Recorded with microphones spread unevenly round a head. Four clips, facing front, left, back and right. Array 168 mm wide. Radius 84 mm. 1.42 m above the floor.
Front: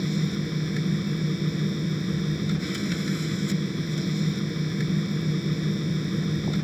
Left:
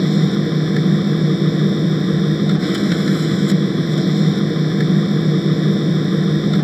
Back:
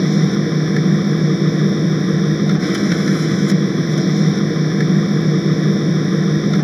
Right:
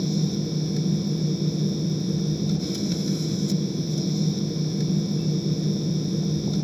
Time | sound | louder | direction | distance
0.0 | a machine running | left 9 dB, back 12 dB | 140° left | ?